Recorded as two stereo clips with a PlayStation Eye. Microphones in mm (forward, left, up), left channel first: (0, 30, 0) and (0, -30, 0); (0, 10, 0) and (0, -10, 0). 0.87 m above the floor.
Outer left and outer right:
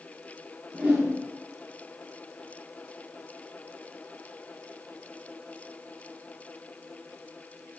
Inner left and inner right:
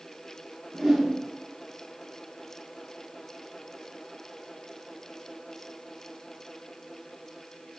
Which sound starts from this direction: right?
A whoosh, at 0.7 s.